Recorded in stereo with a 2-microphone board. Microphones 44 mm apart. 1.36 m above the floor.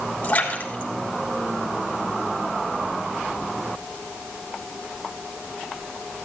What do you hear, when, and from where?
0.2 s a splash: 35° left (ahead or behind), 3 m